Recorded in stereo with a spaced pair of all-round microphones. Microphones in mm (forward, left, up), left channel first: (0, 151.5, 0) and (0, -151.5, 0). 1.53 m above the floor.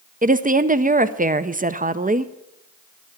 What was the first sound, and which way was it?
A woman speaking, 25° right (ahead or behind).